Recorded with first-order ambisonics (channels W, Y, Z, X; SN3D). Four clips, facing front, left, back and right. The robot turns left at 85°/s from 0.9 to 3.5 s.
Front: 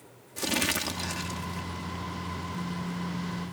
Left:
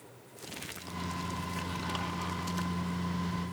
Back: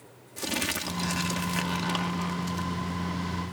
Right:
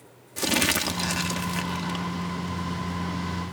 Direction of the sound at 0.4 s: 85° right.